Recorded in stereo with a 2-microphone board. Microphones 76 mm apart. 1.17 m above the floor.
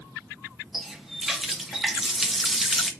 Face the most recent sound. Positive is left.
turn(degrees=-5)  # may be behind; listen again after turning